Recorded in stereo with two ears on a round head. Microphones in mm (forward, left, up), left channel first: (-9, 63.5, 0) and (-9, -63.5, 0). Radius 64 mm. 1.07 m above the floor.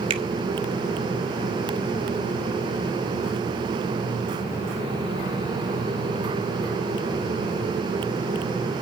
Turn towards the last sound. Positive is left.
turn(degrees=-40)  # may be behind; listen again after turning